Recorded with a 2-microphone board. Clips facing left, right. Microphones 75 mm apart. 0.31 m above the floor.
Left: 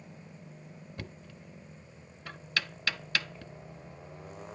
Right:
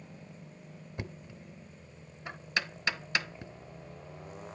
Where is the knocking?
20° right (ahead or behind), 0.6 m.